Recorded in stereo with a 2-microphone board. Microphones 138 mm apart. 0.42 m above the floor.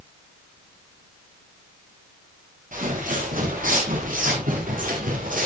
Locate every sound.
2.7 s footsteps: 75° right (ahead or behind), 9 m; by 5.5 s 85° right, 7.5 m